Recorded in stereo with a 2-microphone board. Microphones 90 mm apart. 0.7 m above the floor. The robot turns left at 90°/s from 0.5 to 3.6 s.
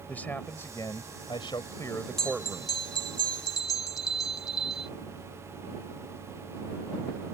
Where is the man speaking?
160° left; by 2.8 s 45° right.